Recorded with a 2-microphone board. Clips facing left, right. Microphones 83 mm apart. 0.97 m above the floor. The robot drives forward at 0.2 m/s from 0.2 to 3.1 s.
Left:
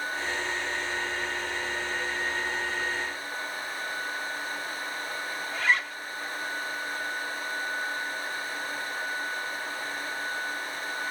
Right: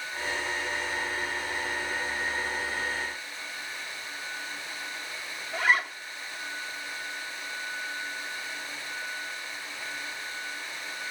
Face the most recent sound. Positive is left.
turn(degrees=-10)  # may be behind; listen again after turning